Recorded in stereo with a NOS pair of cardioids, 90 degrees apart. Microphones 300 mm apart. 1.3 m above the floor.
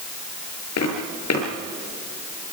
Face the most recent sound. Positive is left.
turn(degrees=60)